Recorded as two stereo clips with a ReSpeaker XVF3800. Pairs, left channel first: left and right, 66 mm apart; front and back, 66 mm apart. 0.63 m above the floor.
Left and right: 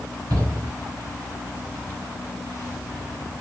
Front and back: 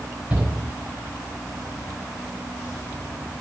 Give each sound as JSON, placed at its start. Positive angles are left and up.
{"t": 0.3, "sound": "a shout", "azimuth_deg": -105, "distance_m": 5.0}